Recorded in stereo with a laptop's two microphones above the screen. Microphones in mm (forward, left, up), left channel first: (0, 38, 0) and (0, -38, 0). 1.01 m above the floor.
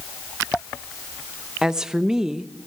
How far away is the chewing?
No chewing in this recording.